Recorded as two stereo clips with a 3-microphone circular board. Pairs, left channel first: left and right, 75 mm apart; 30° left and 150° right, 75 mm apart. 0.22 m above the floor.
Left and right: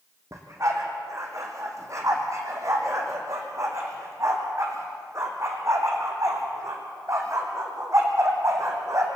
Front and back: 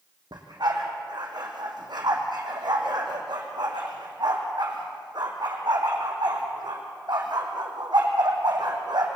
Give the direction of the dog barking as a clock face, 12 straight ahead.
5 o'clock.